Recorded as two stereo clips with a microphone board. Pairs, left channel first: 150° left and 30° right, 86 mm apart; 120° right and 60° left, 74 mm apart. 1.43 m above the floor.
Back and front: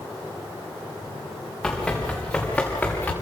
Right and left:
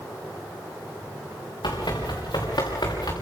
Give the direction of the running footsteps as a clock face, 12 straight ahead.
4 o'clock.